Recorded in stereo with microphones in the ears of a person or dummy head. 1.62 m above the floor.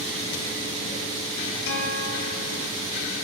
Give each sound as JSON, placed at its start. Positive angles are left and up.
{"t": 1.7, "sound": "a guitar", "side_deg": 65, "distance_m": 0.8}